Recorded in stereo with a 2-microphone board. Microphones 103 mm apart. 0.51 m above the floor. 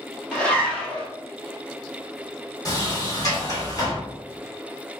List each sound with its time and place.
0.3 s a zipper: 10° left (ahead or behind), 1.1 m
2.6 s a sliding door: 35° left (ahead or behind), 1.3 m